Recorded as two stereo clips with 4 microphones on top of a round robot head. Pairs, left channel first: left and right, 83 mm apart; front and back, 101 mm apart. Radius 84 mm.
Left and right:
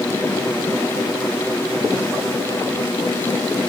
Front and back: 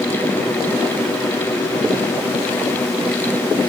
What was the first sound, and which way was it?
Only background noise.